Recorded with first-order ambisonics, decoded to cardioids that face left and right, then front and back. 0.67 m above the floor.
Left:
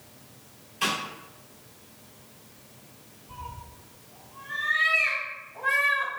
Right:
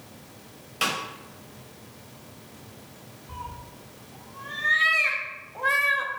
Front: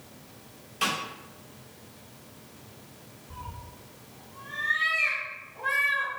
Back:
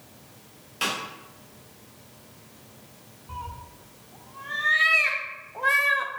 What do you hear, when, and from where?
0.8 s a snare drum: 110° right, 1.2 m
3.3 s a cat meowing: 150° right, 0.5 m